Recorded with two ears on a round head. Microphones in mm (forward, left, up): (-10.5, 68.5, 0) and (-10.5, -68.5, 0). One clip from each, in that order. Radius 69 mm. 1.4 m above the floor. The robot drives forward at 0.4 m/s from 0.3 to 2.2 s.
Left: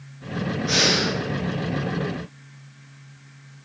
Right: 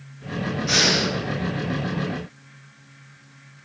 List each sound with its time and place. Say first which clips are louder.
0.7 s breathing: right 1 dB; 30° right (ahead or behind), 1.0 m; by 1.1 s 25° right (ahead or behind), 1.2 m